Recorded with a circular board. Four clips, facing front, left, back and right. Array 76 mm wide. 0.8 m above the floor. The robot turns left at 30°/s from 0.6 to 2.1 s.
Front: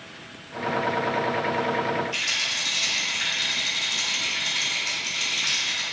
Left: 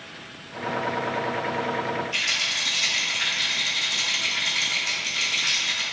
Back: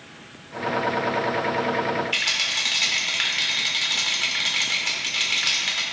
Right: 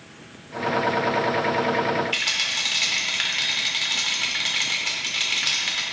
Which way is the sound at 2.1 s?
140° right.